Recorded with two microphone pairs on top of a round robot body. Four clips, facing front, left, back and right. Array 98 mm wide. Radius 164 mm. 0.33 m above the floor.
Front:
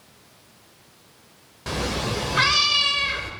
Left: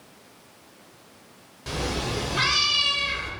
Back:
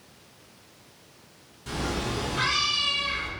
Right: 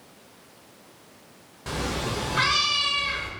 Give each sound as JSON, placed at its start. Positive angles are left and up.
{"t": 1.7, "sound": "a cat meowing", "azimuth_deg": -15, "distance_m": 1.1}